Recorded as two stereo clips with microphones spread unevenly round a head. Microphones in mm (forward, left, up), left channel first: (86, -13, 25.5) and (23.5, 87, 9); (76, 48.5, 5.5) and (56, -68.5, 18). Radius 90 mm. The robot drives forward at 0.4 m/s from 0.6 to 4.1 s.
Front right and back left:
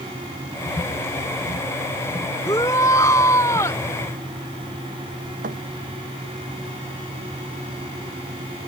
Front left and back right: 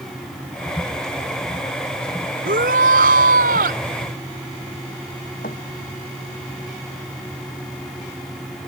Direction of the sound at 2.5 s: 130° right.